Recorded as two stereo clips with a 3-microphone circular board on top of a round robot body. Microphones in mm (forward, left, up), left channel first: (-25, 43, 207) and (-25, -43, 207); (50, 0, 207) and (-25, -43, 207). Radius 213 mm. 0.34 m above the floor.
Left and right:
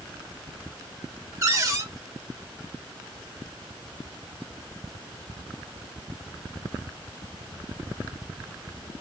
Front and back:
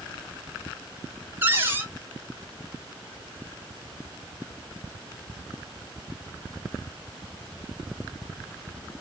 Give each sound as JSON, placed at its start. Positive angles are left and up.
{"t": 1.4, "sound": "a cupboard door", "azimuth_deg": -100, "distance_m": 1.3}